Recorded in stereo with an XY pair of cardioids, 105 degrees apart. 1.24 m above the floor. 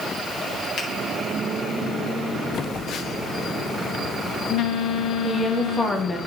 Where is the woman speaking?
25° left, 1.7 m.